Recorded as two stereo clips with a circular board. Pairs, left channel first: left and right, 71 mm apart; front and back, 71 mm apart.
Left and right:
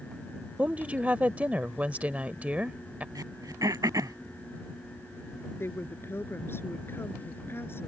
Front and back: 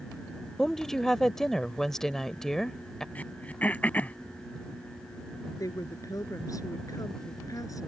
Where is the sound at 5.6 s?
35° left.